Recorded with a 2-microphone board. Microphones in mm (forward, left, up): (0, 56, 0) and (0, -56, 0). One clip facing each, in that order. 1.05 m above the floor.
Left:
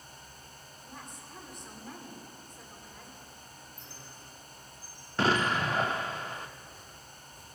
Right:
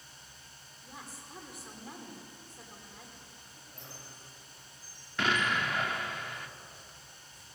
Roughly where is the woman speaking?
Centre.